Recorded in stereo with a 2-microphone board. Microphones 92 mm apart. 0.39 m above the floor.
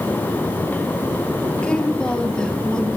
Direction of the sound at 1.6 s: 10° left (ahead or behind).